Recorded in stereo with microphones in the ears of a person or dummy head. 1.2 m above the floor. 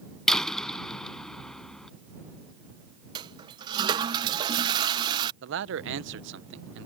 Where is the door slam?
Centre (ahead or behind).